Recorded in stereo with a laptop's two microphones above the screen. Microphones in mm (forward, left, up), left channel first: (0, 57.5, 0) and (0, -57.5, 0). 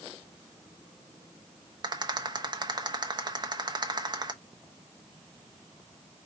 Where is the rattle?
40° right (ahead or behind), 0.9 m.